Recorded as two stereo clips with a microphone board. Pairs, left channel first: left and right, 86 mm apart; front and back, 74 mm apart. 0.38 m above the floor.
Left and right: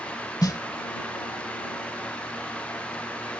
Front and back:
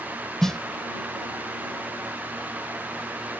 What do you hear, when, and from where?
0.4 s a snare drum: 80° left